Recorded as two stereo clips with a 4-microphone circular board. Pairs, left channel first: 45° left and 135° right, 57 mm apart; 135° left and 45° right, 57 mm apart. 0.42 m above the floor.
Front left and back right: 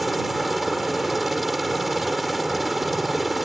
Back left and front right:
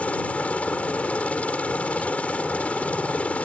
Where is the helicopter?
140° left.